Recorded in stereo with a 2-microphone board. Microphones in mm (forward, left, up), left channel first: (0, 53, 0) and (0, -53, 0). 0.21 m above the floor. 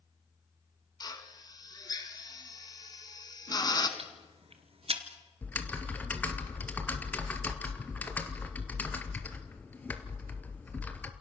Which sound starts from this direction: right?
Ticking, at 4.0 s.